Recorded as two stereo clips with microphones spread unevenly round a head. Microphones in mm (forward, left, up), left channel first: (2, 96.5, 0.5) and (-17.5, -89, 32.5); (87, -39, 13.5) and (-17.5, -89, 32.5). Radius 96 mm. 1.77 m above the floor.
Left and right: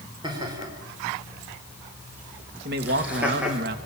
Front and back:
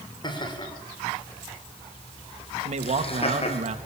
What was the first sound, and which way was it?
Laughter, 25° right.